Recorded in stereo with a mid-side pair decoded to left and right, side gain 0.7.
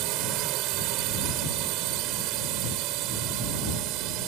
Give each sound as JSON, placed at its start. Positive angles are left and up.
{"t": 0.0, "sound": "a drone", "azimuth_deg": -65}